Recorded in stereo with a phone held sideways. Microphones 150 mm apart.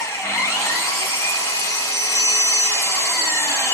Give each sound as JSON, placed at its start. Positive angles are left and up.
{"t": 0.0, "sound": "an engine running", "side_deg": 15, "distance_m": 1.7}